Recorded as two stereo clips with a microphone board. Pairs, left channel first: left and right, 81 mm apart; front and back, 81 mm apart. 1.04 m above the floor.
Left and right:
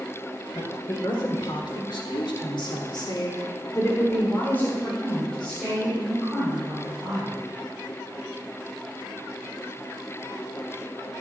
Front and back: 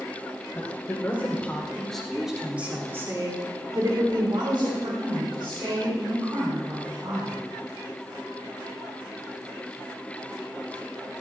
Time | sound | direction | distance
0.5 | a woman speaking | 60° left | 4 m